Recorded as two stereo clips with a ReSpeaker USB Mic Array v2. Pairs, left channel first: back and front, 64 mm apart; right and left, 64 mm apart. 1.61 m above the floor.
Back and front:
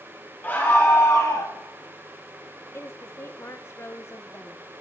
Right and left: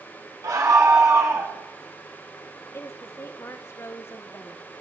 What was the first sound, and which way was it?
A scream, 120° left.